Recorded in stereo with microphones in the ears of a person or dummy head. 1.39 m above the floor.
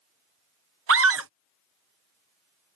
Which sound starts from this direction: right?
A scream, at 0.9 s.